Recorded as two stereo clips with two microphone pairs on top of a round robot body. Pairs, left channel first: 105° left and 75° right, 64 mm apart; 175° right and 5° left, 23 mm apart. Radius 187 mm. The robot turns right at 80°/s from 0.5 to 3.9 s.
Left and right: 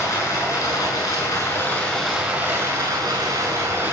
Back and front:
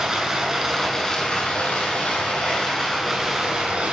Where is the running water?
70° left, 7.5 m; by 3.9 s 20° right, 7.5 m.